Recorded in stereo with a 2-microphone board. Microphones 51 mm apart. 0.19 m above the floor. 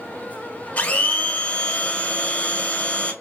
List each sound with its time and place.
0.8 s a blender: 30° left (ahead or behind), 0.9 m